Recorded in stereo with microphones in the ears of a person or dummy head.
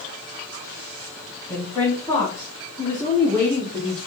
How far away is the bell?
I don't hear a bell.